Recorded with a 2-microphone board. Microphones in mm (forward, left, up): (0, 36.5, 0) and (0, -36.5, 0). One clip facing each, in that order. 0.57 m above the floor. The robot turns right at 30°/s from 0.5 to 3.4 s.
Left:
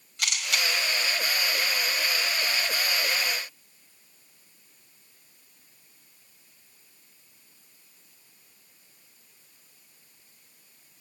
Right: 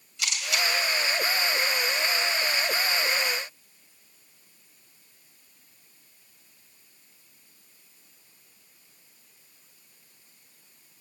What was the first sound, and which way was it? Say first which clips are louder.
A camera shutter: even; 55° left (ahead or behind).